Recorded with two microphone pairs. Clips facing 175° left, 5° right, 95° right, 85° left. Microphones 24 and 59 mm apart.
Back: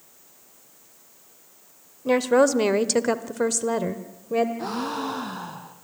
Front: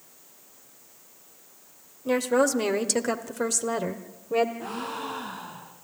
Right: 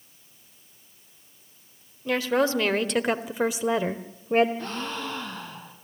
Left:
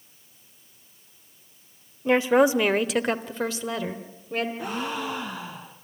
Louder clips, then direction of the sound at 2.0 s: Back 4 dB, left 5 dB; 125° left.